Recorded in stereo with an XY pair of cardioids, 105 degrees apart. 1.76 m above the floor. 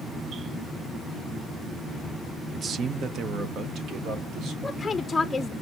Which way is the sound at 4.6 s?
20° left.